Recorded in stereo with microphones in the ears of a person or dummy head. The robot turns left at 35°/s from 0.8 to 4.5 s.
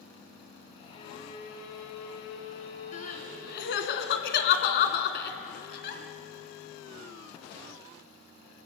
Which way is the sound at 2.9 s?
50° left (ahead or behind).